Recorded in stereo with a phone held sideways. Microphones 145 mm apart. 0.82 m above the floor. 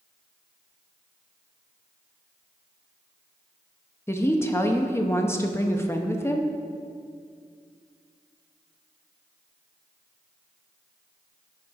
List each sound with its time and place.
4.1 s a woman speaking: 15° left (ahead or behind), 0.6 m